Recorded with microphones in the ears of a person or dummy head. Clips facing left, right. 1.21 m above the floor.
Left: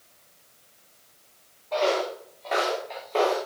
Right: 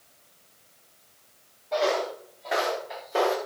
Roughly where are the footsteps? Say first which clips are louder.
Left 1 dB; centre.